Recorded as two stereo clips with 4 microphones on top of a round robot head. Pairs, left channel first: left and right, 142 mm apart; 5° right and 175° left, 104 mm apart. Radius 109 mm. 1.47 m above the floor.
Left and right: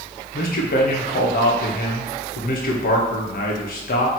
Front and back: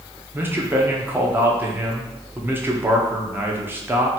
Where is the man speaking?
105° left, 1.1 m.